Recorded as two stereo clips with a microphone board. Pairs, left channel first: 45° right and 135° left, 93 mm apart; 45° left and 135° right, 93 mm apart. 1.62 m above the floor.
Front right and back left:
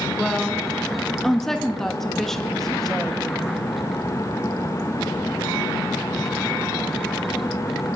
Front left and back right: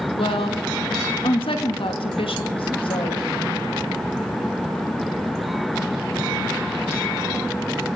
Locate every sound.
0.2 s a woman speaking: 40° left, 2.5 m